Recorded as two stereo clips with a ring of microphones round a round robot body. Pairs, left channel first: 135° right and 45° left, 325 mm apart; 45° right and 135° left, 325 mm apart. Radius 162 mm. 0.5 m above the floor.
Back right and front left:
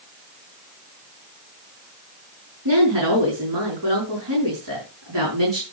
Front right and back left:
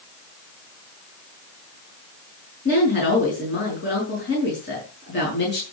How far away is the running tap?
No running tap in this recording.